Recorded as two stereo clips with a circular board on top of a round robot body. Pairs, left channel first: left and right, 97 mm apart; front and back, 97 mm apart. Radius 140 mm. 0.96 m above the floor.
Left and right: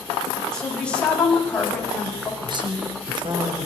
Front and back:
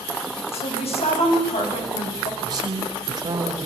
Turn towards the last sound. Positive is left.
turn(degrees=-130)